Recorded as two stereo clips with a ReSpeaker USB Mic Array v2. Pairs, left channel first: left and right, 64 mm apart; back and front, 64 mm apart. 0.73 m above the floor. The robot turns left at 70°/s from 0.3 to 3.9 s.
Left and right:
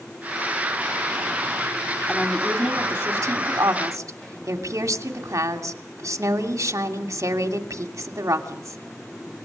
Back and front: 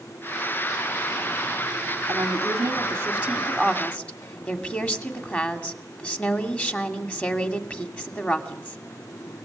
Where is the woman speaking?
10° left, 2.5 m; by 8.8 s 115° right, 2.5 m.